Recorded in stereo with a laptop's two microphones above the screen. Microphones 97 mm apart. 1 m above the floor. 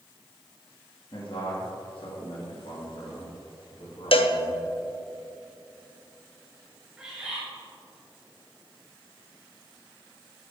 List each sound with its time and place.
1.1 s a man speaking: 60° left (ahead or behind), 1.9 m; by 4.6 s 80° left, 3.5 m
4.1 s a cowbell: 70° left (ahead or behind), 0.7 m
7.0 s a bird: 10° right (ahead or behind), 3 m